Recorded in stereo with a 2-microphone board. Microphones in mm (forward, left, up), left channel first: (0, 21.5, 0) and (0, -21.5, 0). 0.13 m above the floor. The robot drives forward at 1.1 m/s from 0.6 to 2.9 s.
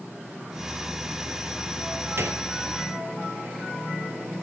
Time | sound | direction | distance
2.2 | a gunshot | 65° right (ahead or behind) | 2 m